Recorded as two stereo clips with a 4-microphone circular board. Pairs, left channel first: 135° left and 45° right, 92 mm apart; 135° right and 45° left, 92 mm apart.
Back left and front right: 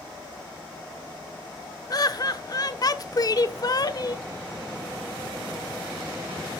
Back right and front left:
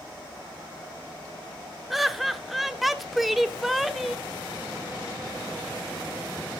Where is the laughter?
135° left, 0.9 m.